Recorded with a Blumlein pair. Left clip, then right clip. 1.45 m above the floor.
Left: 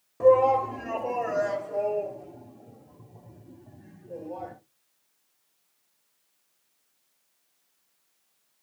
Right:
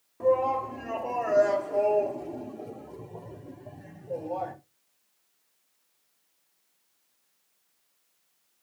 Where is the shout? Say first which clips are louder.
Left 6 dB; 20° left, 1.4 m; by 4.5 s 70° right, 1.7 m.